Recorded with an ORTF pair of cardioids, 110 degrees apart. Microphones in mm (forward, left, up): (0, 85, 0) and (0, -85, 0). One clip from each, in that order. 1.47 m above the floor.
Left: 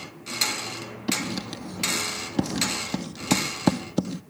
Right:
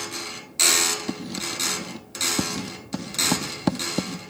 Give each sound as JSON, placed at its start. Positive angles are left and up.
{"t": 1.1, "sound": "writing", "azimuth_deg": 10}